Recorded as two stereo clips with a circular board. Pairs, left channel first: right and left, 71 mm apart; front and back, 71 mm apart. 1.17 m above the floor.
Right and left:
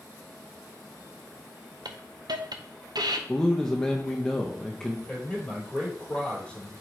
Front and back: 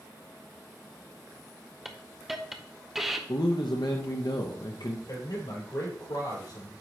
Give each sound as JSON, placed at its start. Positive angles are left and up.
{"t": 1.9, "sound": "a hiss", "azimuth_deg": 95, "distance_m": 0.7}
{"t": 3.3, "sound": "a man speaking", "azimuth_deg": -10, "distance_m": 0.7}
{"t": 5.1, "sound": "a man speaking", "azimuth_deg": -15, "distance_m": 4.0}